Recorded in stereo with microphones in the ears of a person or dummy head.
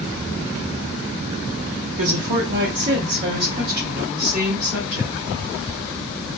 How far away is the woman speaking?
About 0.6 m.